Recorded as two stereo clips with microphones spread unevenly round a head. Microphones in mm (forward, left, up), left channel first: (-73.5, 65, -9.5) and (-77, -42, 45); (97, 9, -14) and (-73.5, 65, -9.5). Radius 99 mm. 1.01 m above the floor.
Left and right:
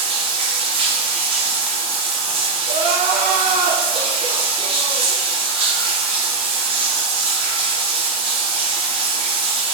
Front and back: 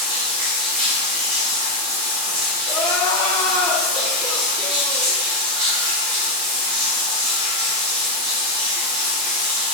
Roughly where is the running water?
Behind right.